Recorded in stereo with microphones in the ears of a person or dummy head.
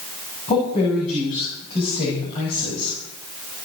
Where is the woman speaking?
35° left (ahead or behind), 7.5 m; by 3.0 s 30° left (ahead or behind), 6 m.